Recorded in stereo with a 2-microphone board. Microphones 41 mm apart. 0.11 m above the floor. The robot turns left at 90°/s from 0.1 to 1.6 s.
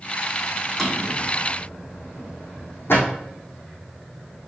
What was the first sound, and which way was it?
A drawer, centre (ahead or behind).